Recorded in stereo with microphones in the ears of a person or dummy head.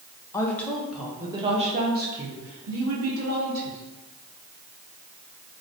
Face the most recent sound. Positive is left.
turn(degrees=-75)  # may be behind; listen again after turning